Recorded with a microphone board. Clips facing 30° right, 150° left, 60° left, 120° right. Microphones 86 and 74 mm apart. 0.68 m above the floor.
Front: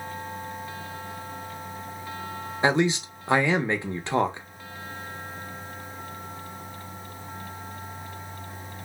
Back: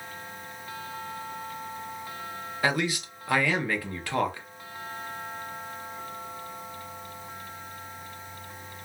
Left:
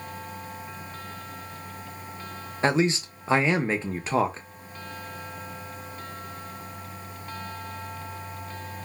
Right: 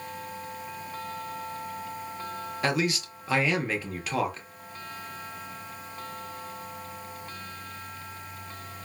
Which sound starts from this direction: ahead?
A man speaking, at 2.6 s.